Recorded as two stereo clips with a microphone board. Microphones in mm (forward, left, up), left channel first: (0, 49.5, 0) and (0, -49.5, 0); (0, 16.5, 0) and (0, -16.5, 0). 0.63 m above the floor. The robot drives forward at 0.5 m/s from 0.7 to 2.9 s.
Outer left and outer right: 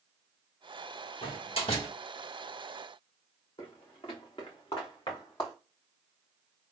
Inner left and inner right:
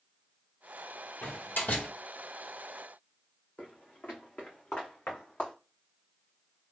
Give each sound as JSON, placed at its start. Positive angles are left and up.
{"t": 1.2, "sound": "a door slam", "side_deg": 70, "distance_m": 1.9}
{"t": 3.6, "sound": "footsteps", "side_deg": 60, "distance_m": 1.7}